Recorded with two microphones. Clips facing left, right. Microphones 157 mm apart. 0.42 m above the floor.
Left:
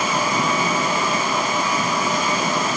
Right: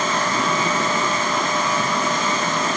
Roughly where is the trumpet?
No trumpet in this recording.